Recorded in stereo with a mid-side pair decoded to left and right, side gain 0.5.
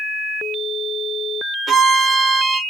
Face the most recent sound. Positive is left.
turn(degrees=-40)